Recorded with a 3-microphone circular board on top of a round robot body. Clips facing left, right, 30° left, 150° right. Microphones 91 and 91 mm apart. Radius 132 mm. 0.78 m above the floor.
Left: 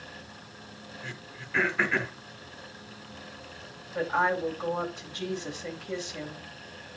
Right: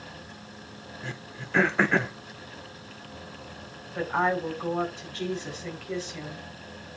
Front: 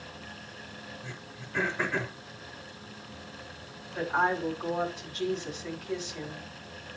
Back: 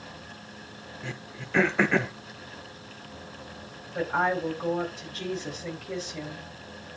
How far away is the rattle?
No rattle in this recording.